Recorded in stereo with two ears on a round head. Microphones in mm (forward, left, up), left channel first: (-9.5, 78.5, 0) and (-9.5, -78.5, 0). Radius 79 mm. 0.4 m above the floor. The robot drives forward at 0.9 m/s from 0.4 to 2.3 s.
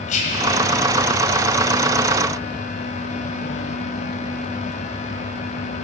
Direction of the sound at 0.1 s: 40° left (ahead or behind).